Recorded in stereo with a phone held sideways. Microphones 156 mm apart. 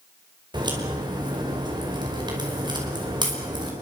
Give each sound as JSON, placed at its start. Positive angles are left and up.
{"t": 0.5, "sound": "a crack", "side_deg": -30, "distance_m": 5.5}